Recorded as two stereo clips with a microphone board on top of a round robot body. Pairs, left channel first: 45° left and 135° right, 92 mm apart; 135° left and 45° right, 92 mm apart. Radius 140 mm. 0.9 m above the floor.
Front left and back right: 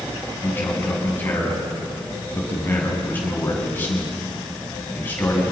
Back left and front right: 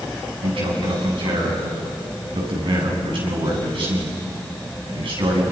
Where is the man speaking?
25° right, 8 m.